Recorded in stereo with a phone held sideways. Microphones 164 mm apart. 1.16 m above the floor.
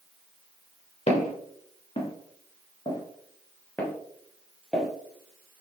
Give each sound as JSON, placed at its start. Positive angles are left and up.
{"t": 1.1, "sound": "footsteps", "side_deg": 40, "distance_m": 1.5}